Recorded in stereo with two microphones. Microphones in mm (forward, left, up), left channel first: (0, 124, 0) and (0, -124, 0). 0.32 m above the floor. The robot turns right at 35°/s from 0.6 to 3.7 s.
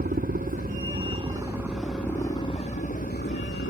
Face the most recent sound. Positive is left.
turn(degrees=65)